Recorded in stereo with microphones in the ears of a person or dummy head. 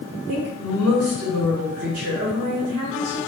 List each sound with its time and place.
0.3 s a woman speaking: 70° right (ahead or behind), 2.5 m